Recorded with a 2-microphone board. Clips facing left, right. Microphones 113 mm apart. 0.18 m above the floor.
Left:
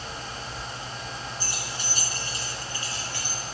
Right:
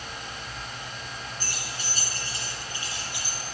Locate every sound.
1.4 s keys jangling: 55° right (ahead or behind), 1.3 m; by 3.4 s 10° right (ahead or behind), 1.8 m